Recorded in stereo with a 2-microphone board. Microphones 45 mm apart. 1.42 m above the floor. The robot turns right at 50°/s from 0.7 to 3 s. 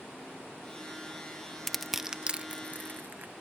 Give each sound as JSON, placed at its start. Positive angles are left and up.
{"t": 1.7, "sound": "crushing", "side_deg": 5}